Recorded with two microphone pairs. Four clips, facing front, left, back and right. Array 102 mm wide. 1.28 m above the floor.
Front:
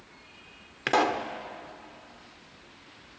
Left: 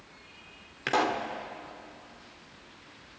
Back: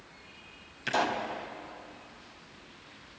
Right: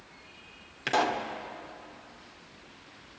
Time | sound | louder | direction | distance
0.9 | a pop | even, front 4 dB | 15° left | 1.8 m